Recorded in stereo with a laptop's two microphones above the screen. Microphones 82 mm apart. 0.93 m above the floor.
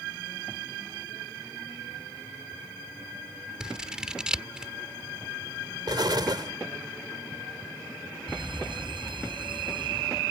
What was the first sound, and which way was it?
Scissors, 10° right (ahead or behind).